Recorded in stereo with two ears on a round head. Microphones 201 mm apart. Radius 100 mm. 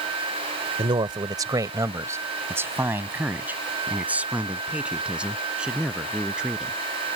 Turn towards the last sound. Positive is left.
turn(degrees=-5)  # may be behind; listen again after turning